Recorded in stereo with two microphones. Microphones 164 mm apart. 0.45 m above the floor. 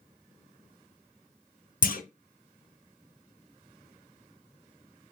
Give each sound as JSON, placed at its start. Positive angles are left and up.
{"t": 1.8, "sound": "a clunk", "side_deg": 60, "distance_m": 0.5}